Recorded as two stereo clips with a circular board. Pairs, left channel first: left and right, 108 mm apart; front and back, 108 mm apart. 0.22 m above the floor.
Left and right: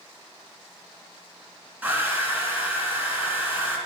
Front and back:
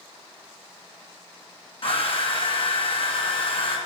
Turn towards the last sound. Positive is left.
turn(degrees=-15)